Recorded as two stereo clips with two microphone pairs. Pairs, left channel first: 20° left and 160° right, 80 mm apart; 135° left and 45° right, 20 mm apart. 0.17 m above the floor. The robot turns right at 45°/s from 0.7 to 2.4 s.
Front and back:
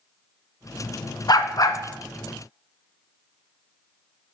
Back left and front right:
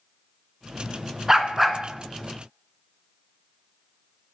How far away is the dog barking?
About 0.6 m.